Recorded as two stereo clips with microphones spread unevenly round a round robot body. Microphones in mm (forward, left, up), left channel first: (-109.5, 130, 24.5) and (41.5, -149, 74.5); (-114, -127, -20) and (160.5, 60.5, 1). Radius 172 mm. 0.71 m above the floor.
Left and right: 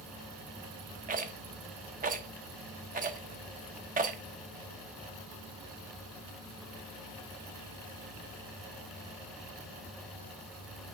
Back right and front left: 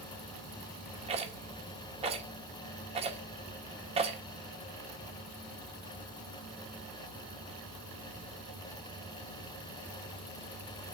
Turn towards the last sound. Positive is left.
turn(degrees=-15)